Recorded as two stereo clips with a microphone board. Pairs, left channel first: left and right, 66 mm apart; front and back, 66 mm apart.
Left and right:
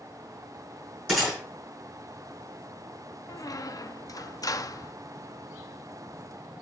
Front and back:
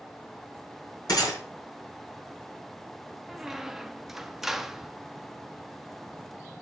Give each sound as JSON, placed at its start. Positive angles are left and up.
{"t": 1.1, "sound": "a gunshot", "azimuth_deg": -5, "distance_m": 6.5}
{"t": 3.3, "sound": "a squeak", "azimuth_deg": 95, "distance_m": 0.5}